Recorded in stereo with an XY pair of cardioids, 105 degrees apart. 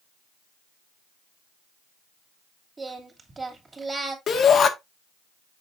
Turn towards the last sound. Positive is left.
turn(degrees=50)